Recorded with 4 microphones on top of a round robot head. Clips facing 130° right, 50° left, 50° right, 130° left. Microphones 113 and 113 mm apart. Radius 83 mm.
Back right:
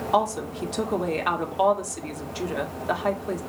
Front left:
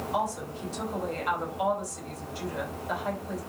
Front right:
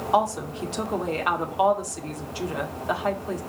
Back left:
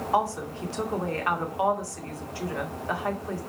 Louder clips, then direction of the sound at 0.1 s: Back right 8 dB, front right 3 dB; 120° right.